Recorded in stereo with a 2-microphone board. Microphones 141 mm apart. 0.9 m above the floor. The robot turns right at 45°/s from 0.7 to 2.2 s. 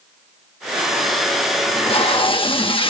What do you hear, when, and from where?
1.7 s tape being pulled: 40° left (ahead or behind), 0.9 m